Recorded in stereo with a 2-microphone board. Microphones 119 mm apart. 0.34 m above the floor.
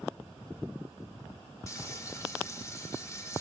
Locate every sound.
1.7 s frying: 30° left (ahead or behind), 1.2 m